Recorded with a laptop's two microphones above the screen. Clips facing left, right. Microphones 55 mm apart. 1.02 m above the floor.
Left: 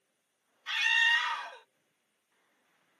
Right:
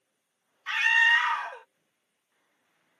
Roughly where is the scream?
Right.